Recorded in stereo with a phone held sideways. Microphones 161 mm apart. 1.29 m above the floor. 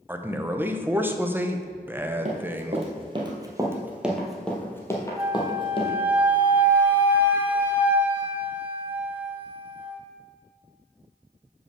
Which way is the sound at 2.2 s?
45° right (ahead or behind).